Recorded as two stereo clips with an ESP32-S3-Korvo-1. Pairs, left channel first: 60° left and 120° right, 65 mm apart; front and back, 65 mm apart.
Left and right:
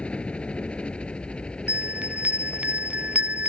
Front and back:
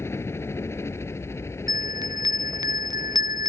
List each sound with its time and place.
0.0 s a helicopter: 5° right; by 3.5 s 10° right
1.7 s a bell: 170° left